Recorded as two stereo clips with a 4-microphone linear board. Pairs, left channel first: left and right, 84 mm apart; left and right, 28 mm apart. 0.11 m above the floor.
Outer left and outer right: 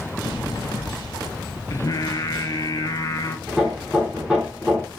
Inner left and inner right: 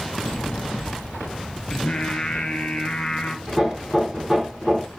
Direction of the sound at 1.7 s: 45° left (ahead or behind).